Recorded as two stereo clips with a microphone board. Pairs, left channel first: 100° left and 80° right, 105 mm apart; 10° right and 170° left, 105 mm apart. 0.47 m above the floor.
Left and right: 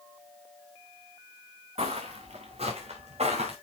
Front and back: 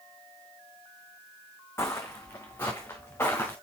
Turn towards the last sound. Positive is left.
turn(degrees=-80)